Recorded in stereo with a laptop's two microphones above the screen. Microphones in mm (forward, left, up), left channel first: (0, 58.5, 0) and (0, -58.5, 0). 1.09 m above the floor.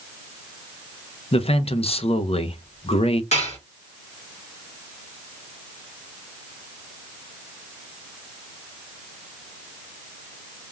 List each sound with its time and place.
1.3 s a man speaking: 55° left (ahead or behind), 0.5 m
3.3 s dishes clattering: 75° left (ahead or behind), 1.6 m